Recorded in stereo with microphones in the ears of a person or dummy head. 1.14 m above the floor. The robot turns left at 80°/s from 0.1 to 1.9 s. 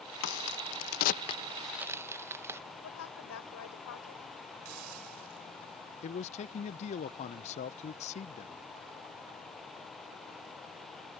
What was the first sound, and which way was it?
A crack, 55° left (ahead or behind).